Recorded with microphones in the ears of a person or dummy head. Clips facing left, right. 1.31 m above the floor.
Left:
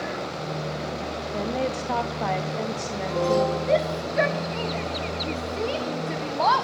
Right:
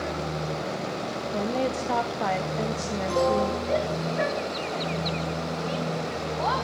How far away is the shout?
About 1.2 m.